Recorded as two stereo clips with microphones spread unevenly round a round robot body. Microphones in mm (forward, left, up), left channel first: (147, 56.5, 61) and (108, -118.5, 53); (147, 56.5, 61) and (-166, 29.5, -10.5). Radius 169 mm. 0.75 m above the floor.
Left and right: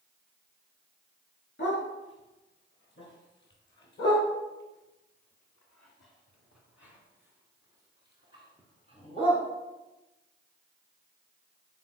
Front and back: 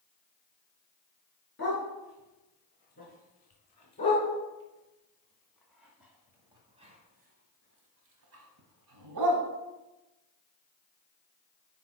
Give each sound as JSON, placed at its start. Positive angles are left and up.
{"t": 1.6, "sound": "a dog barking", "azimuth_deg": 60, "distance_m": 4.0}